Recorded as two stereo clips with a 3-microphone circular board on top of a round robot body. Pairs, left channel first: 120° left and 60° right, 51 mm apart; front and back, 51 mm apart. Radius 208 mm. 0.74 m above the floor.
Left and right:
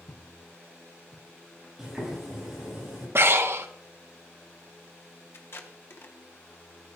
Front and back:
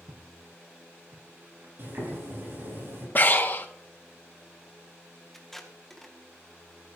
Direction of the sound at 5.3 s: 85° left.